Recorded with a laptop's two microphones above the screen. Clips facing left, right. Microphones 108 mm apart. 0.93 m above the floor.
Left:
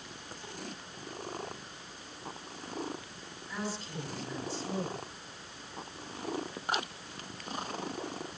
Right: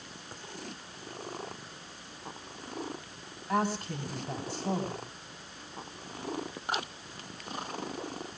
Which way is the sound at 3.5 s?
60° right (ahead or behind).